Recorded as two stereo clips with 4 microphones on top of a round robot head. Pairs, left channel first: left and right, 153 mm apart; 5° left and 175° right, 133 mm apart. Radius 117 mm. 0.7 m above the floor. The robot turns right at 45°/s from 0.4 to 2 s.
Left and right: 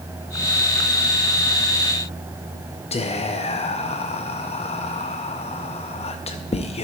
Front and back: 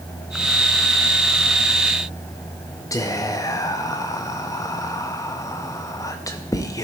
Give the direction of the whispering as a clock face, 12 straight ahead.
10 o'clock.